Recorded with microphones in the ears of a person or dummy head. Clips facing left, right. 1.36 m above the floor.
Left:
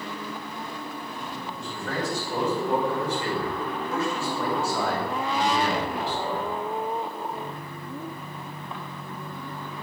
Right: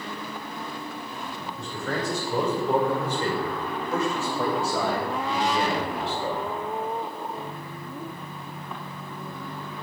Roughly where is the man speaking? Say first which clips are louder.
Right 1 dB; right.